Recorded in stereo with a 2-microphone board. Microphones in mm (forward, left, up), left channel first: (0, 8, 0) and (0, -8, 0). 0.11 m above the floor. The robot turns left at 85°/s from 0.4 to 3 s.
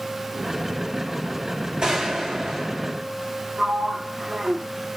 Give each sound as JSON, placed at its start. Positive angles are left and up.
{"t": 1.8, "sound": "a gunshot", "azimuth_deg": -75, "distance_m": 2.5}
{"t": 3.6, "sound": "a sliding door", "side_deg": -40, "distance_m": 0.7}